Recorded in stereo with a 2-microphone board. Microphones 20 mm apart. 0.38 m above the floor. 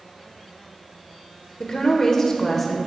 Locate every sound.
1.6 s a woman speaking: 30° left (ahead or behind), 1.1 m; by 2.8 s 5° left (ahead or behind), 1.2 m